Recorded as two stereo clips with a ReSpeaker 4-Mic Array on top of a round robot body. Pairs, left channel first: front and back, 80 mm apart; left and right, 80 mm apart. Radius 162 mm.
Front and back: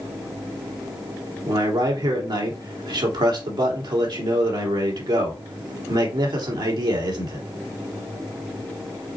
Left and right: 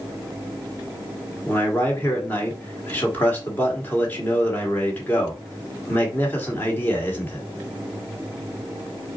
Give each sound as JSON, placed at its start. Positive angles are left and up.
{"t": 1.4, "sound": "a man speaking", "azimuth_deg": 160, "distance_m": 1.7}